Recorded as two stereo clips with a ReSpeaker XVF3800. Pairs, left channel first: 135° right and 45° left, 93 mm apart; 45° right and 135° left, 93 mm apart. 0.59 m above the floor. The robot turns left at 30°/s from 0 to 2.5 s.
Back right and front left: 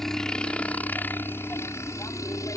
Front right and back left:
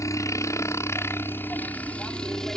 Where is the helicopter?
50° right; by 2.6 s 125° right.